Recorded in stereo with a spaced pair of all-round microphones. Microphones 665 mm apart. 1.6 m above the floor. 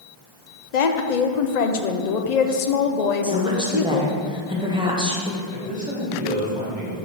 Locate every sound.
0.7 s a woman speaking: 70° left (ahead or behind), 0.7 m
3.2 s a woman speaking: 5° right (ahead or behind), 1.0 m
5.5 s a man speaking: 10° right (ahead or behind), 1.9 m